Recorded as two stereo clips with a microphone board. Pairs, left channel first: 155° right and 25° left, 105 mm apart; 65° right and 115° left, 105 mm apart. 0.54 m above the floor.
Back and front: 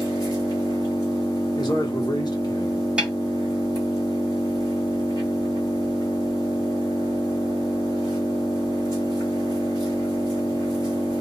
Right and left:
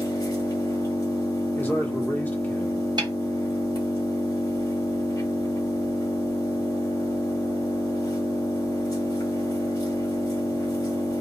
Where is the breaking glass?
I don't hear breaking glass.